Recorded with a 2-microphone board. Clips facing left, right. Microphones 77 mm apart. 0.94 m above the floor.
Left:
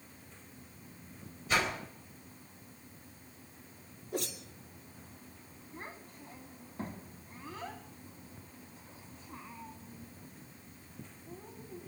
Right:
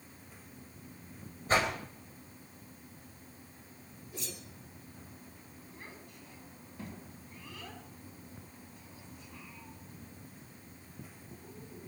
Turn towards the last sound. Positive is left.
turn(degrees=35)  # may be behind; listen again after turning